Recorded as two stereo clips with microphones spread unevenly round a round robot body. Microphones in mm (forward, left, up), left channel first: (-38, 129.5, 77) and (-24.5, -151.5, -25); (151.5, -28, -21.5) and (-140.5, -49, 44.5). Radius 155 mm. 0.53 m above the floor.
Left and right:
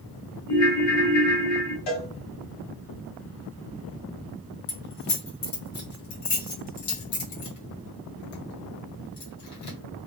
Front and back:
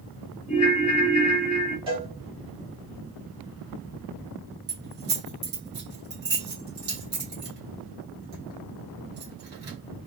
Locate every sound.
0.5 s a ringtone: 50° left, 0.8 m
1.9 s a cowbell: 115° left, 1.1 m
4.7 s keys jangling: 125° left, 1.3 m